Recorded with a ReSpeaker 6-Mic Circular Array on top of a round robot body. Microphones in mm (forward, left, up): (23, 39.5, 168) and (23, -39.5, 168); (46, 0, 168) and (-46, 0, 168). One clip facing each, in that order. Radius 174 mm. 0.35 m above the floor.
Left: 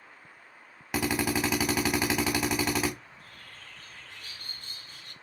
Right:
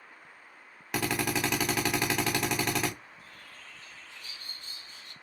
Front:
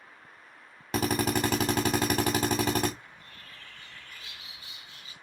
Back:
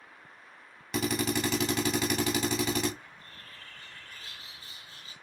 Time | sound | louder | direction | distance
0.9 | a drill | left 2 dB, front 2 dB | 10° left | 1.4 m
3.0 | a bird | even, even | 125° left | 0.9 m